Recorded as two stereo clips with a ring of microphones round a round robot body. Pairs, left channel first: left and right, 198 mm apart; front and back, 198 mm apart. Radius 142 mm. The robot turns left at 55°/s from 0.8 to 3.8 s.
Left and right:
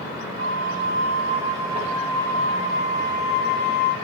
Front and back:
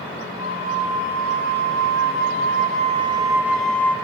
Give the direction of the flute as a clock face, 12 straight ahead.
4 o'clock.